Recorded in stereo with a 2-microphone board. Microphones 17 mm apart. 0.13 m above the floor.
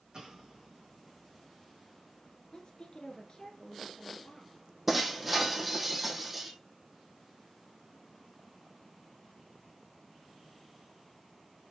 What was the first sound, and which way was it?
An explosion, 45° right (ahead or behind).